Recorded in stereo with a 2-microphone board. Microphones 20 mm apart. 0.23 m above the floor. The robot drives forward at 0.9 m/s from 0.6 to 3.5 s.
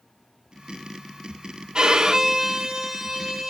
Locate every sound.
1.8 s a violin: 40° right (ahead or behind), 0.7 m; by 3.5 s 15° right (ahead or behind), 2.0 m